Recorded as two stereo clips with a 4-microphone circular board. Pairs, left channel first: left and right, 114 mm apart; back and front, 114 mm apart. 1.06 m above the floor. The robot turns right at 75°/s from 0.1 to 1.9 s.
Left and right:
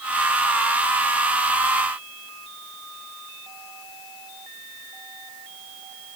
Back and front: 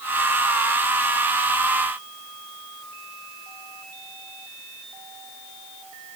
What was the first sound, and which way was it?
Only background noise.